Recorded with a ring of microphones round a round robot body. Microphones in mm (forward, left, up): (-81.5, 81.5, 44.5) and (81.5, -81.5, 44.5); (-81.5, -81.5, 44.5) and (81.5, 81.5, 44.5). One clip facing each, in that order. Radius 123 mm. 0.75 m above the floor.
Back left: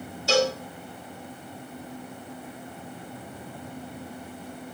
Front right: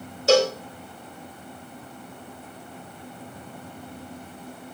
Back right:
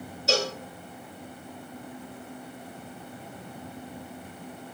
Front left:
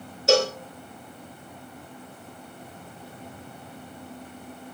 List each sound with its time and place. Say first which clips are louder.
0.3 s a cowbell: front right 5 dB, front left 7 dB; straight ahead, 2.5 m